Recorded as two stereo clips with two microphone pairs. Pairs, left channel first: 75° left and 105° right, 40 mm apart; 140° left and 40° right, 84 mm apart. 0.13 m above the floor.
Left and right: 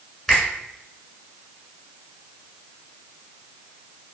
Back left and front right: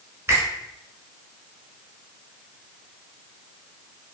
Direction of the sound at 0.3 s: Straight ahead.